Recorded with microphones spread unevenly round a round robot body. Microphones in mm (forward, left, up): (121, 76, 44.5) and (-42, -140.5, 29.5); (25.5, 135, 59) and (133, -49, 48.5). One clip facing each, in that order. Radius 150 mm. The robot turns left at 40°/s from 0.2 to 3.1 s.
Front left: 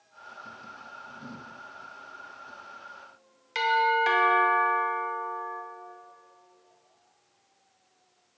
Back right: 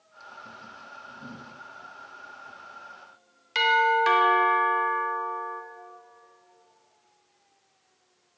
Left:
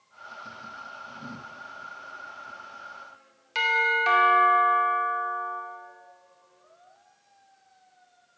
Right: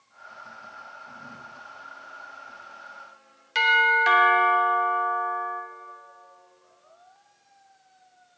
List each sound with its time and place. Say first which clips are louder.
3.5 s a doorbell: back right 2 dB, right 2 dB; 115° right, 1.8 m